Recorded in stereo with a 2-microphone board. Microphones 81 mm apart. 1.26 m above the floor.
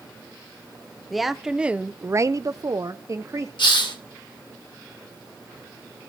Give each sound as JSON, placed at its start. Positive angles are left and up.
{"t": 1.1, "sound": "a woman speaking", "side_deg": 0, "distance_m": 0.9}
{"t": 3.6, "sound": "a hiss", "side_deg": 75, "distance_m": 2.5}